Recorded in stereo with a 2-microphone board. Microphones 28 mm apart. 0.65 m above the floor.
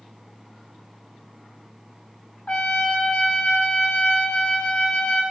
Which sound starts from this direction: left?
A trumpet, at 2.5 s.